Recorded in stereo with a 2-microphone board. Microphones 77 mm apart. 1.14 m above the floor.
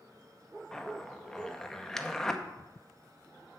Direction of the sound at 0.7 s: 5° left (ahead or behind).